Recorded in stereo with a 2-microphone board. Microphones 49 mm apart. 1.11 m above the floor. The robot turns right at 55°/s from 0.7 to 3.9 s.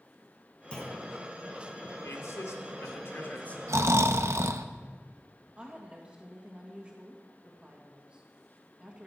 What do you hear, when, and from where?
0.7 s a clunk: 20° left (ahead or behind), 3.5 m; by 1.1 s 40° left (ahead or behind), 3.5 m
2.0 s a man speaking: 70° left, 2.5 m; by 3.6 s 155° left, 2.5 m
3.7 s snoring: 85° right, 0.7 m; by 4.7 s 75° right (ahead or behind), 0.7 m
5.6 s a woman speaking: 25° right (ahead or behind), 1.7 m